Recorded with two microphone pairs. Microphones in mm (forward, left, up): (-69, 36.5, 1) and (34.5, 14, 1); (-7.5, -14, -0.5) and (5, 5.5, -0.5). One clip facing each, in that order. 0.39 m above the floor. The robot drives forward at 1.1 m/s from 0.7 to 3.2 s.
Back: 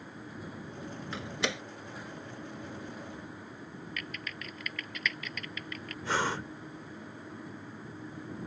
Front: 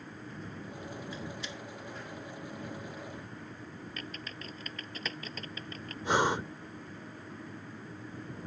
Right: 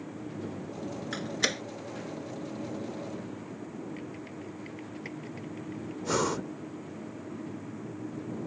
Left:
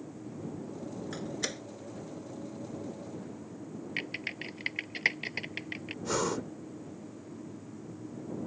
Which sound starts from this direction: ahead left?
Typing on a keyboard, at 4.0 s.